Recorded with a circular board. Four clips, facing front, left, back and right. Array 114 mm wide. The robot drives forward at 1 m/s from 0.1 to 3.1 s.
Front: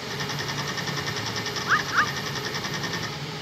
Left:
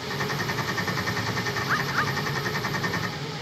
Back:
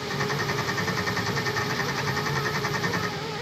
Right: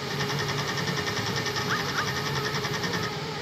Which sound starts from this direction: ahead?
A bird, at 1.7 s.